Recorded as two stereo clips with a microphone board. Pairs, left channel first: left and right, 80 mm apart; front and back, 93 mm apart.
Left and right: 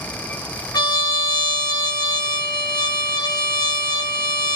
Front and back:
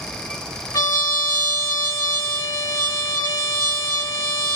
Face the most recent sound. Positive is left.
turn(degrees=50)